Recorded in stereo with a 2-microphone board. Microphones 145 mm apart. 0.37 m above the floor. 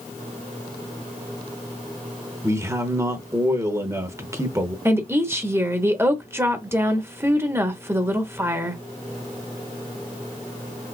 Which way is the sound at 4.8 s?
15° right (ahead or behind).